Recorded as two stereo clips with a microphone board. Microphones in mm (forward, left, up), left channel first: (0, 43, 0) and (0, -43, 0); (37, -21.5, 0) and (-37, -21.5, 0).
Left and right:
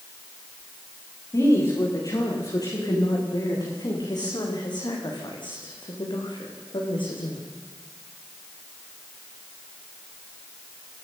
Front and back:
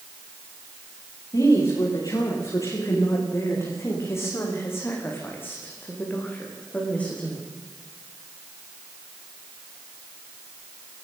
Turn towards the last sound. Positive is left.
turn(degrees=75)